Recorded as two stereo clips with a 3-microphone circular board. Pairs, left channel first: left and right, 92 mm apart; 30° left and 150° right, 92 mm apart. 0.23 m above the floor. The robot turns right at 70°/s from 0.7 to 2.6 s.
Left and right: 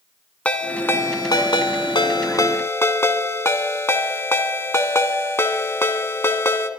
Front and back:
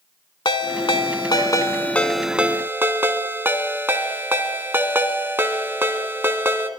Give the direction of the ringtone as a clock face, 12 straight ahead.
11 o'clock.